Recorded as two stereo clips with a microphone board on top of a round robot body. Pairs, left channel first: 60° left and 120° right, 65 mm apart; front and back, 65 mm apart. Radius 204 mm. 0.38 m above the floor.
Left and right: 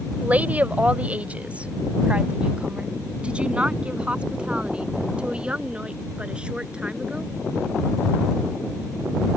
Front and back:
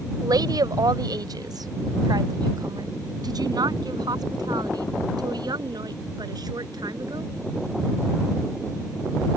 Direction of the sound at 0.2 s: 175° left.